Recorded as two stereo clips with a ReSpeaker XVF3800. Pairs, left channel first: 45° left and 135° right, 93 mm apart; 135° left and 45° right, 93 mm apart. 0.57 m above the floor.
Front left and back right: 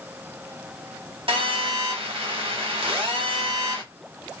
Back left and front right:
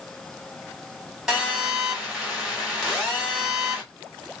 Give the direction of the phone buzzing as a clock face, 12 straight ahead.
4 o'clock.